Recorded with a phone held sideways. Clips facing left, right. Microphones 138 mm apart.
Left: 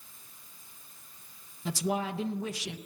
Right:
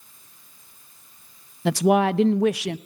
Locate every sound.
1.6 s a woman speaking: 75° right (ahead or behind), 0.6 m